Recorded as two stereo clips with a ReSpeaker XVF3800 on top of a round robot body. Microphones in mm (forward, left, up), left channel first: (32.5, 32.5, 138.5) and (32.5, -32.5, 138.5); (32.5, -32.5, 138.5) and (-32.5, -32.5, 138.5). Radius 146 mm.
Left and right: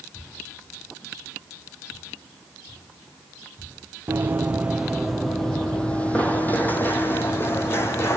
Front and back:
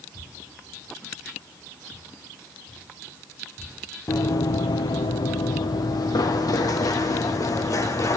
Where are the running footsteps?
30° right, 1.0 m; by 8.2 s 40° left, 2 m.